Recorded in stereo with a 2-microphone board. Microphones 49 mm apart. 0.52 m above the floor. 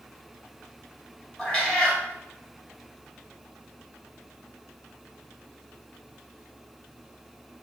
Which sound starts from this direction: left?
A cat meowing, at 1.4 s.